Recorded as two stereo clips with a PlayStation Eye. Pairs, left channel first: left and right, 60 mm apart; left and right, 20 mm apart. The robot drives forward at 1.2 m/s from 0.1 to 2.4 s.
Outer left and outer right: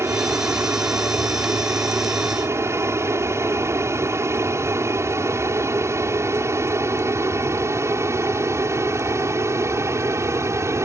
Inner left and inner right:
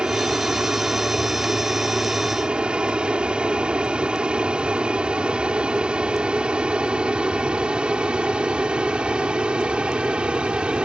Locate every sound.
0.0 s an aircraft: 45° right (ahead or behind); by 10.9 s 50° right (ahead or behind)